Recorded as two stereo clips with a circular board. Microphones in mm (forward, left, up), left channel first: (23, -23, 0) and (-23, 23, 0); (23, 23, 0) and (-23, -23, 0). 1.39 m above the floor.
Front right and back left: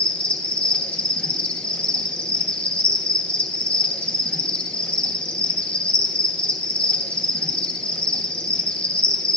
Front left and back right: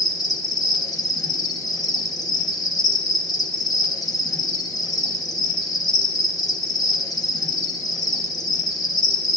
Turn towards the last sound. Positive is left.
turn(degrees=25)